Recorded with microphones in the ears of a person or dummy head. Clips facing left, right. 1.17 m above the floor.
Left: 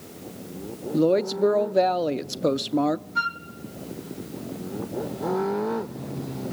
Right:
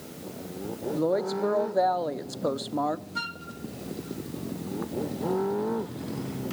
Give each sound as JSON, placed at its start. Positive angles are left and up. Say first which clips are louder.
{"t": 0.9, "sound": "a woman speaking", "louder": "left 6 dB", "side_deg": 35, "distance_m": 0.6}
{"t": 3.1, "sound": "a flute", "louder": "left 5 dB", "side_deg": -5, "distance_m": 0.6}